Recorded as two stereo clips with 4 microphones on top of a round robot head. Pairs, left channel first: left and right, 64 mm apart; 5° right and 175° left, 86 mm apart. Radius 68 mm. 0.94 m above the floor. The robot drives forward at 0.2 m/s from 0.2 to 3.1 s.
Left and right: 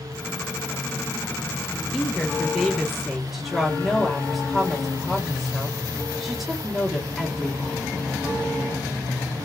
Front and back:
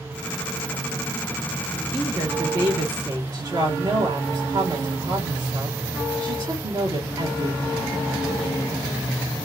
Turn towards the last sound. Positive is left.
turn(degrees=180)